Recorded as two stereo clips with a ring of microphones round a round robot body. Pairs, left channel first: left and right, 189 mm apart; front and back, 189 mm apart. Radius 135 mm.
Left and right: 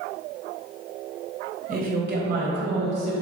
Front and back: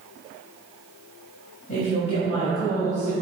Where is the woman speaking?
55° right, 2.5 m; by 3.1 s 80° right, 2.5 m.